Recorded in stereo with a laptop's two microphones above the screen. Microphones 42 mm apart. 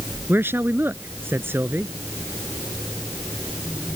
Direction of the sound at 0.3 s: 65° right (ahead or behind).